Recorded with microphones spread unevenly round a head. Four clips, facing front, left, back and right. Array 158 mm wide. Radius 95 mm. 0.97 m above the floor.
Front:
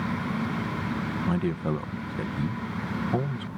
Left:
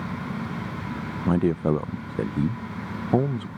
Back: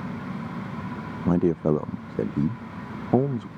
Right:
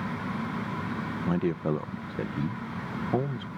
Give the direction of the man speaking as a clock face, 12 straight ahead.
7 o'clock.